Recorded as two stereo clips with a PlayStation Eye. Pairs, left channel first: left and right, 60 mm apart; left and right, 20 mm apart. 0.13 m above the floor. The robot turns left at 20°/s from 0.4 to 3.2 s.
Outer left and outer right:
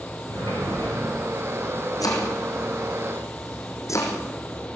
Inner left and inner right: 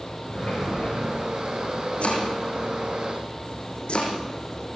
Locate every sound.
0.3 s a sliding door: 70° left (ahead or behind), 7 m; by 1.1 s 85° left, 7 m
2.0 s chopping: 80° left, 5.5 m; by 4.2 s 60° left (ahead or behind), 5.5 m